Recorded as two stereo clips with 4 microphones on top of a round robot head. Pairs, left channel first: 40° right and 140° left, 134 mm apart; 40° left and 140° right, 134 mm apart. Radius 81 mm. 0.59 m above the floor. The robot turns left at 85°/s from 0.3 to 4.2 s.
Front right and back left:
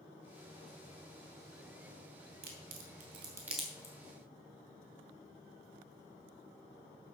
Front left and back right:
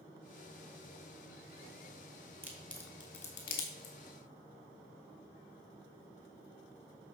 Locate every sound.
2.4 s a crack: 145° left, 2.5 m; by 4.0 s 20° left, 2.5 m